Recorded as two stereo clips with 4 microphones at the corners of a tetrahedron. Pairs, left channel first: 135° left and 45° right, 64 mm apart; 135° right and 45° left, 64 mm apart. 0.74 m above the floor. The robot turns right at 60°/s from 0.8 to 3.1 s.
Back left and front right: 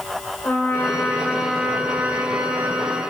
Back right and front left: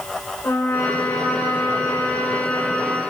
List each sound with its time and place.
0.4 s a trumpet: straight behind, 3 m; by 3.0 s 45° right, 3 m